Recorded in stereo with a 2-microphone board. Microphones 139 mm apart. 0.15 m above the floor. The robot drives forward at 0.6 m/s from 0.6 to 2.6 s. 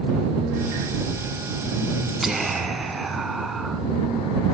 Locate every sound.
2.2 s whispering: centre (ahead or behind), 1.7 m